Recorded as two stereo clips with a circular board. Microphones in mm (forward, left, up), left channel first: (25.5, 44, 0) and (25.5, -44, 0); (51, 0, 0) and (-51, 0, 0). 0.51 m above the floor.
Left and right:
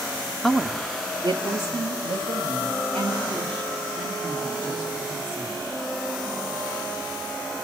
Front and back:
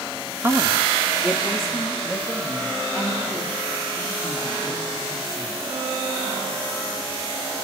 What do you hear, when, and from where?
0.4 s a woman speaking: 160° left, 0.7 m; by 5.6 s 80° right, 6.5 m